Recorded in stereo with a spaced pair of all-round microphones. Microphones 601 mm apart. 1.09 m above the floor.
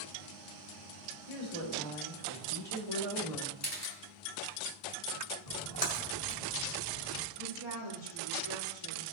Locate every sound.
1.3 s a woman speaking: 70° right (ahead or behind), 3.5 m; by 3.5 s 60° right (ahead or behind), 2.5 m
3.6 s a camera shutter: 25° left (ahead or behind), 2 m
5.5 s a splash: 75° left (ahead or behind), 2 m
7.4 s a woman speaking: 50° right (ahead or behind), 4.5 m